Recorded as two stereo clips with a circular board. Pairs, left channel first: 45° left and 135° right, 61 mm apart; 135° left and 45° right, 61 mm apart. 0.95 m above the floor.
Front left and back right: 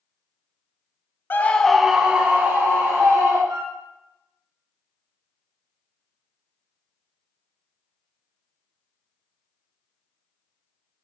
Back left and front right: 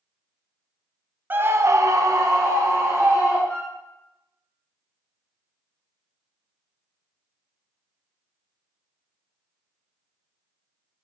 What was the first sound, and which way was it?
A scream, 5° left.